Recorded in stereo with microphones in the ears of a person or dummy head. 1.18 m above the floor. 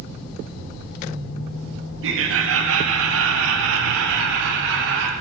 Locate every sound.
2.0 s laughter: 60° right (ahead or behind), 2 m; by 5.1 s 70° right (ahead or behind), 4 m